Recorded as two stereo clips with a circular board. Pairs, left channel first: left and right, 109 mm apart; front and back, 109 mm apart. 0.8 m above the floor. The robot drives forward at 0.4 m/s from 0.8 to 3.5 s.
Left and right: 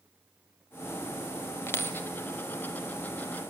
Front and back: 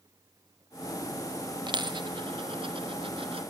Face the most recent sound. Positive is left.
turn(degrees=165)